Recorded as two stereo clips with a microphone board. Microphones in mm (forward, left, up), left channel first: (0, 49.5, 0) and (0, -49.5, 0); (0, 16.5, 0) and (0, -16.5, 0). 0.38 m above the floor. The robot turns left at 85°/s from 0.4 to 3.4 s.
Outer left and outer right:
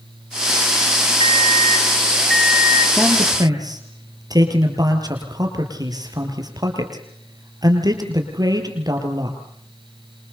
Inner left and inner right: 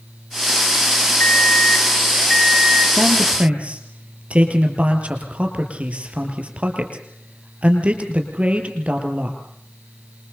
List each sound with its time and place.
1.2 s an alarm clock: 100° left, 1.2 m; by 2.9 s 40° right, 1.2 m
3.0 s a man speaking: 5° right (ahead or behind), 6.5 m; by 9.4 s 40° right (ahead or behind), 6.5 m